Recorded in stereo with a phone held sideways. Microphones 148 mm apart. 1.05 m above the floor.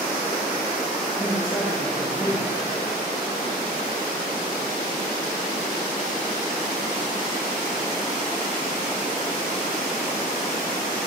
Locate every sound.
1.2 s a man speaking: 20° left (ahead or behind), 2.5 m